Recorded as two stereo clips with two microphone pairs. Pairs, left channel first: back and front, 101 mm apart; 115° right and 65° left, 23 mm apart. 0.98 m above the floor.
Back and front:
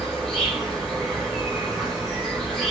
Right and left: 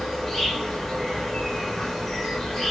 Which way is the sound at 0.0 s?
105° right.